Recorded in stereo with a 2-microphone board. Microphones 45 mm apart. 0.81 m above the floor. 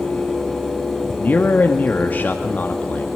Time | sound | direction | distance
1.2 | a man speaking | 40° left (ahead or behind) | 1.7 m